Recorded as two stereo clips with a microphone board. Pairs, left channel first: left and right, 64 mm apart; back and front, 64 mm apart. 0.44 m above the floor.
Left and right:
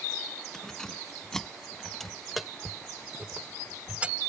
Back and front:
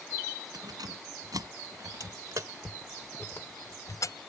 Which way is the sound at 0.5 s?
10° left.